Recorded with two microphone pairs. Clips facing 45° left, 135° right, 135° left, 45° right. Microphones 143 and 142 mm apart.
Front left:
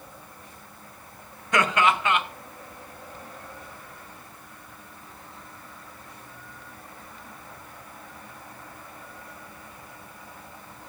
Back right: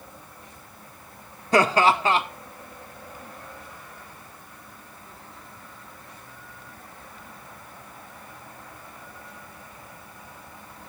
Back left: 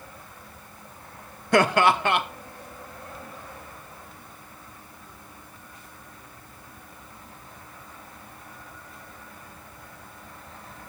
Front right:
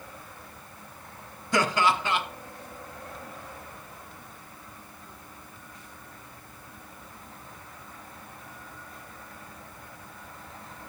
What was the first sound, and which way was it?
Laughter, 170° left.